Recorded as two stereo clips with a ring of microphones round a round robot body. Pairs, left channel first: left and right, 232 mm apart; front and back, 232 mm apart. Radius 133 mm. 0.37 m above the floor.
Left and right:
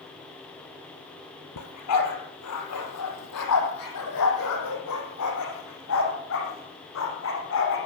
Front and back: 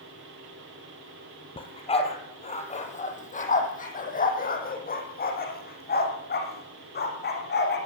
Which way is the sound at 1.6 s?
70° left.